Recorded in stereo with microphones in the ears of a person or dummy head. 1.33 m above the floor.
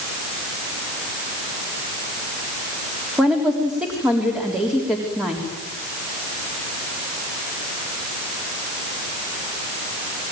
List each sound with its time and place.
3.2 s a woman speaking: 5° right (ahead or behind), 3.5 m